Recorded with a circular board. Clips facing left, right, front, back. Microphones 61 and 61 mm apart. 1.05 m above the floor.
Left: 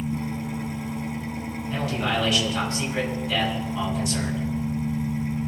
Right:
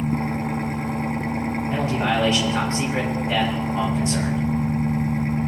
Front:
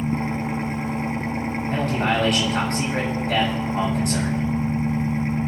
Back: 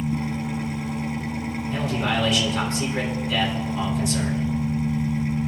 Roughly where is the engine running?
Ahead right.